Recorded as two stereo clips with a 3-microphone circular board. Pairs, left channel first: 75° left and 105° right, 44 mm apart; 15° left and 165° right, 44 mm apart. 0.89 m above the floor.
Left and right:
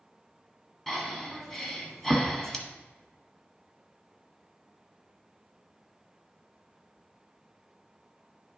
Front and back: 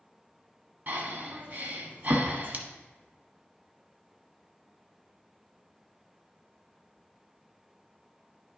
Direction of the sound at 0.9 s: 160° left.